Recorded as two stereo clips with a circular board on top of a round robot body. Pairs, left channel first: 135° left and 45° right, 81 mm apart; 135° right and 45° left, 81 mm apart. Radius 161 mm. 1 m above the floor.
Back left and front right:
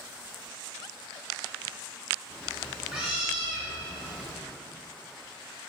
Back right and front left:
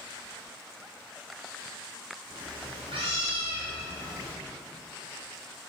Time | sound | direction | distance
2.3 | a cat meowing | 35° left | 0.5 m